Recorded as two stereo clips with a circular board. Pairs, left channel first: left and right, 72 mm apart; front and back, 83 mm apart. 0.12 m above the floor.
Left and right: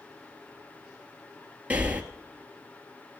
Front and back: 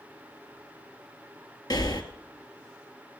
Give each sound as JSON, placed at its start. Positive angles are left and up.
{"t": 1.7, "sound": "breathing", "azimuth_deg": -25, "distance_m": 1.1}